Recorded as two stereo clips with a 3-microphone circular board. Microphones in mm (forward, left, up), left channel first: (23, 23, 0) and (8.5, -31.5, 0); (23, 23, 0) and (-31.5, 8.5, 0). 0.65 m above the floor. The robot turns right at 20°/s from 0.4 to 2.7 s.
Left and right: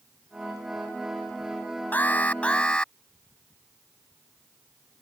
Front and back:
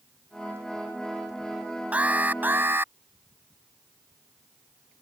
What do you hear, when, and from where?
1.9 s an alarm: 130° left; by 2.9 s 145° left